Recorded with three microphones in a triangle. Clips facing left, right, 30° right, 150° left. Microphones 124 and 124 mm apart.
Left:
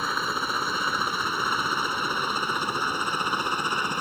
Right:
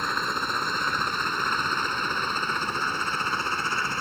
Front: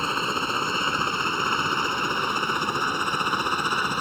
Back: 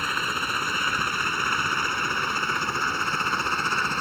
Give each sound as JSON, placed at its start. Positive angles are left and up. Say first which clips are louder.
{"t": 0.0, "sound": "a helicopter", "louder": "even, front 3 dB", "azimuth_deg": 10}